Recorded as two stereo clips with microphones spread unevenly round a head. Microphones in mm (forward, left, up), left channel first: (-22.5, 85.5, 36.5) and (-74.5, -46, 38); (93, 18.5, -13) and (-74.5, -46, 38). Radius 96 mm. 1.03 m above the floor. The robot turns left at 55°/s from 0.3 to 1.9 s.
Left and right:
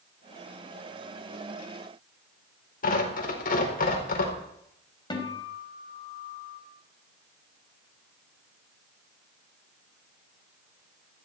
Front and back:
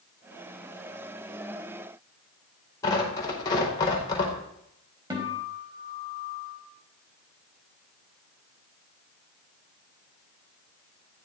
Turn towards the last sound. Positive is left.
turn(degrees=130)